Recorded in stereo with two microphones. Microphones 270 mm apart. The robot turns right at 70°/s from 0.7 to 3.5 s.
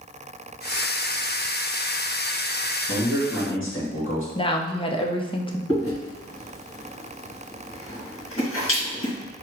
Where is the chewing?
55° left (ahead or behind), 1.9 m.